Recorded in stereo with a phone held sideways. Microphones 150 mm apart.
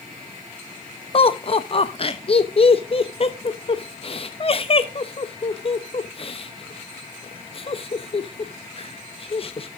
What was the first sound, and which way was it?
Laughter, 40° left (ahead or behind).